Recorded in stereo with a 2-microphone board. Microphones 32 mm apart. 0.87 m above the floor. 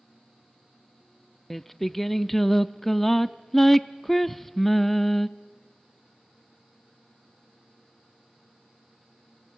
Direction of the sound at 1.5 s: 5° left (ahead or behind).